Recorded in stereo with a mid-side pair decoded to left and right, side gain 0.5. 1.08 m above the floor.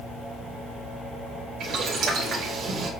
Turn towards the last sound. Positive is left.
turn(degrees=-65)